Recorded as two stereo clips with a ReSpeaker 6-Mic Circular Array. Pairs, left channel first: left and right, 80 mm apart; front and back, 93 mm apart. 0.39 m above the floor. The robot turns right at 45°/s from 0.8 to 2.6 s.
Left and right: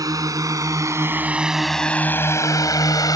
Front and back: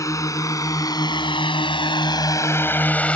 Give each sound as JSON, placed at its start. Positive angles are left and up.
{"t": 0.0, "sound": "a drone", "azimuth_deg": -50}